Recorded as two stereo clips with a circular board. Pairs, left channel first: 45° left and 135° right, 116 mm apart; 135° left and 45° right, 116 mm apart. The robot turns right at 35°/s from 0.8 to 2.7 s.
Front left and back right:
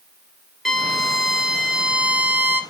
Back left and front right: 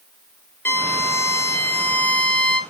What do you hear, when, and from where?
0.7 s a violin: 130° left, 1.4 m; by 2.6 s 170° right, 1.4 m